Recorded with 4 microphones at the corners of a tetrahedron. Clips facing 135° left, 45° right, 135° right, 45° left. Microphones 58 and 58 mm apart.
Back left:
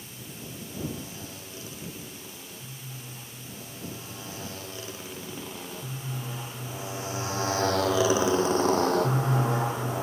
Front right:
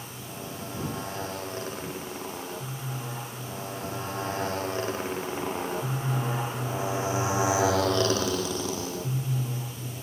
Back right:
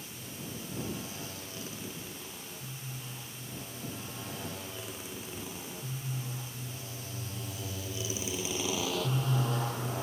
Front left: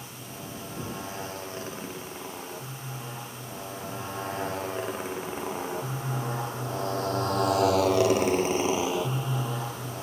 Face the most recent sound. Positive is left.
turn(degrees=140)